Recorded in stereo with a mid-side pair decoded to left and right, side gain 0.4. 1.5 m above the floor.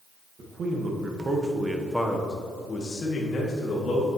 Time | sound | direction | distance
0.4 | a man speaking | 60° right | 1.9 m